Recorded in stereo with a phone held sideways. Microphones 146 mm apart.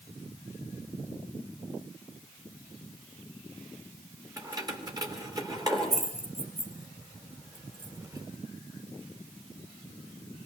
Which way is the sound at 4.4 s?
25° right (ahead or behind).